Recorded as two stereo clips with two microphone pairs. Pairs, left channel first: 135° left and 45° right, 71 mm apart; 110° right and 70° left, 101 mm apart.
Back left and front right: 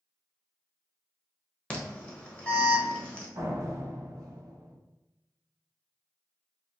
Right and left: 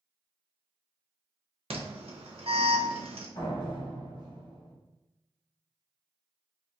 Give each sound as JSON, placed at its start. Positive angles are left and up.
{"t": 1.7, "sound": "an alarm", "azimuth_deg": 60, "distance_m": 0.9}
{"t": 3.4, "sound": "a door slam", "azimuth_deg": -80, "distance_m": 1.3}